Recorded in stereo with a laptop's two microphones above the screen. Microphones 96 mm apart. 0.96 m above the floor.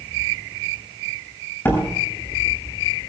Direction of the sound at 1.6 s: 25° left (ahead or behind).